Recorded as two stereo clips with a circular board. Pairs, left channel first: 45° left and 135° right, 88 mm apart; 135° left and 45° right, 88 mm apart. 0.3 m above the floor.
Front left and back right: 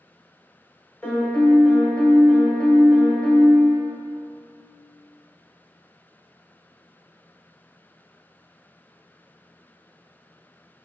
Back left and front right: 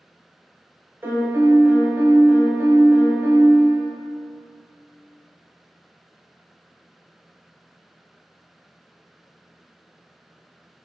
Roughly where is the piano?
Ahead.